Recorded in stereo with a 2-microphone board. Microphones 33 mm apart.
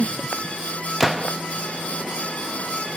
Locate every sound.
1.0 s a gunshot: 5° right (ahead or behind), 0.7 m